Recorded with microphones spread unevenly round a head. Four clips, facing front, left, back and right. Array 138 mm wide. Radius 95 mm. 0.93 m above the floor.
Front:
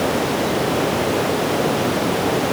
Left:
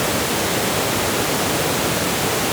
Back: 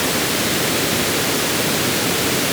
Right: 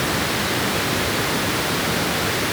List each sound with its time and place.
Only background noise.